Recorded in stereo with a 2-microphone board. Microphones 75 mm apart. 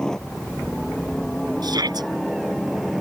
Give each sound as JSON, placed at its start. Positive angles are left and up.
{"t": 0.0, "sound": "a helicopter", "side_deg": 10}
{"t": 1.6, "sound": "a shout", "side_deg": -65}